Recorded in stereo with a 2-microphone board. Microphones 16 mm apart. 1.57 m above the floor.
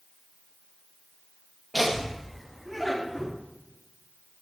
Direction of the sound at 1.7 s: Centre (ahead or behind).